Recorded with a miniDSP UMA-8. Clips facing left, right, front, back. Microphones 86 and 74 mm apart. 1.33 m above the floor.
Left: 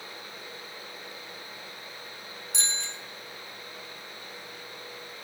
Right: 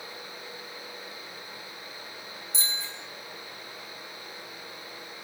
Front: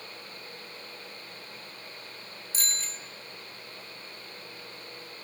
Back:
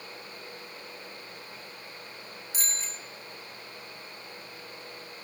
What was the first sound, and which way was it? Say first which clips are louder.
A bicycle bell: left 1 dB, front 1 dB; 105° left.